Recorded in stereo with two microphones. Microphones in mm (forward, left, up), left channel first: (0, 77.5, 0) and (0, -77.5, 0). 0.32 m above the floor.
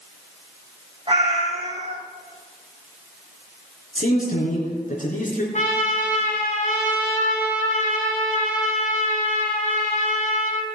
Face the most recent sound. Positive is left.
turn(degrees=55)  # may be behind; listen again after turning